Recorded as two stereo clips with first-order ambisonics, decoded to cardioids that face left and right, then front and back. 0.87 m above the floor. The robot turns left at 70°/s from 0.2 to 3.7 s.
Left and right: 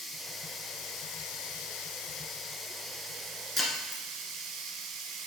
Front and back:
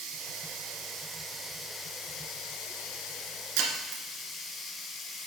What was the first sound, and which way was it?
Running water, 175° right.